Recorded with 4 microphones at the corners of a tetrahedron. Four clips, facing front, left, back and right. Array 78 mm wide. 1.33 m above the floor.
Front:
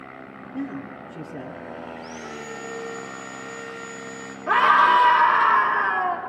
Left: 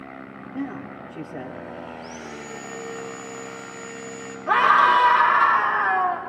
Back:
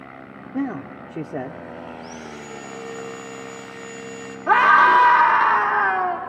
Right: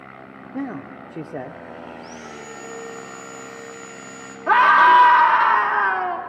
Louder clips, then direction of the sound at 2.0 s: Even, even; 35° right.